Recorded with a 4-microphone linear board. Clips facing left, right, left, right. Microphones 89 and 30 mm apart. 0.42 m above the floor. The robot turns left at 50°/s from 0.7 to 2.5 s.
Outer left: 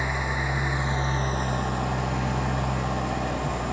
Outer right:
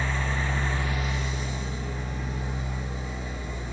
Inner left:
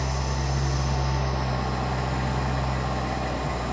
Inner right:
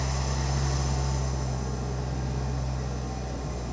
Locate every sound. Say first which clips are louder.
0.0 s an engine running: outer left 2 dB, inner left 3 dB; 165° left, 1.6 m; by 3.7 s 75° left, 1.6 m